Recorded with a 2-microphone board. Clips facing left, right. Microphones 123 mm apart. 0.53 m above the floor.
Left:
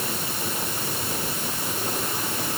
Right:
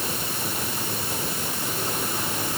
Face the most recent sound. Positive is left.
No sound to turn to.